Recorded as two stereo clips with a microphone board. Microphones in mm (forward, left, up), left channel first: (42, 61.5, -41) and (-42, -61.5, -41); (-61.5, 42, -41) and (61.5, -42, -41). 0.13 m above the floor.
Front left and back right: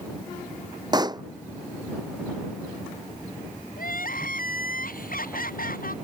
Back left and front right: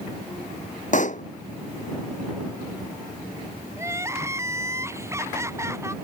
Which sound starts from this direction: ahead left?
Crying, at 3.8 s.